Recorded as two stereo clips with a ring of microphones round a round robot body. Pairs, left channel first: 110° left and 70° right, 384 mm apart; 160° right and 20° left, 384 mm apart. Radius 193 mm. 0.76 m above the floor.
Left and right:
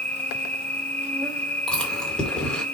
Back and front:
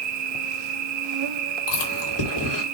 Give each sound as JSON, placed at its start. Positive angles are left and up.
{"t": 0.0, "sound": "an insect", "azimuth_deg": 30, "distance_m": 1.2}
{"t": 1.7, "sound": "chewing", "azimuth_deg": -160, "distance_m": 2.5}